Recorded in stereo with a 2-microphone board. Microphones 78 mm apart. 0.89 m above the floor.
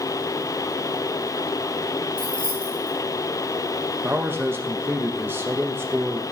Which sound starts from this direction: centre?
Keys jangling, at 2.2 s.